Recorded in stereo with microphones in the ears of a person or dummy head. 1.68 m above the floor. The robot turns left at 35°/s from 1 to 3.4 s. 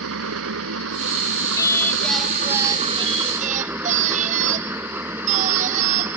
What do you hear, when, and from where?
0.0 s an engine running: 85° right; by 6.2 s 170° right
1.6 s singing: 20° left; by 6.2 s 45° right